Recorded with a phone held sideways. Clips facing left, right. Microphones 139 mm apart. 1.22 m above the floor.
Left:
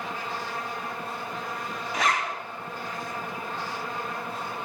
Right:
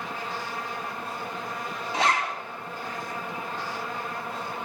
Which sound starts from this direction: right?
A zipper, at 1.9 s.